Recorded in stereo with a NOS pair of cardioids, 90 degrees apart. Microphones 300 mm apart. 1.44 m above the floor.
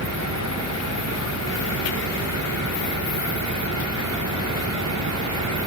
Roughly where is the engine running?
Ahead right.